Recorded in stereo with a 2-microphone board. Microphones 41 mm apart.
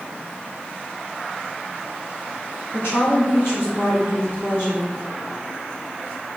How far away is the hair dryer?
I don't hear a hair dryer.